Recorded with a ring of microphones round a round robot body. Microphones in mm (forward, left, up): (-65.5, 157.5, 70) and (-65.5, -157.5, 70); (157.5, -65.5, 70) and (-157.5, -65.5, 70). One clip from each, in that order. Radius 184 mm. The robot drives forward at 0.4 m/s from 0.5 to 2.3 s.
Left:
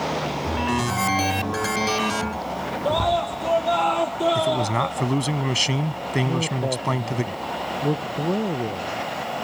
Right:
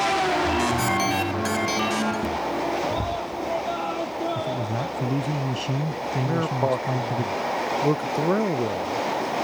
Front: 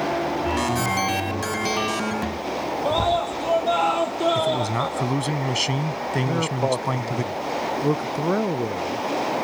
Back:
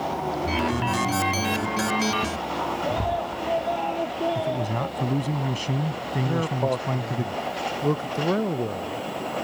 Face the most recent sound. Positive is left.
turn(degrees=-70)